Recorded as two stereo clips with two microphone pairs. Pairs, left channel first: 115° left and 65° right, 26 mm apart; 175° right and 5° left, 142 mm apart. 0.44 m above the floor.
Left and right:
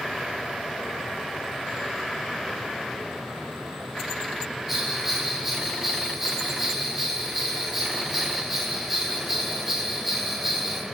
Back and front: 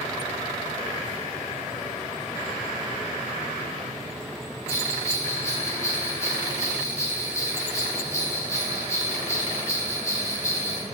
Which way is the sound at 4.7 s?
130° right.